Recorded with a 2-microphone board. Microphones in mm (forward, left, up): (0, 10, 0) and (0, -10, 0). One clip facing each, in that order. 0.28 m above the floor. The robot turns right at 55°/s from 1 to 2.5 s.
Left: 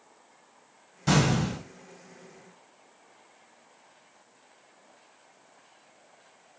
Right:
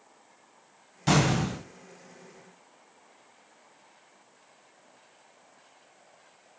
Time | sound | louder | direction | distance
1.1 | an explosion | even | 40° right | 1.6 m